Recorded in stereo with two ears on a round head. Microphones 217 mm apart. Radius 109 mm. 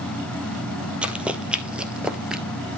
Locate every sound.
1.0 s running footsteps: 5° right (ahead or behind), 1.7 m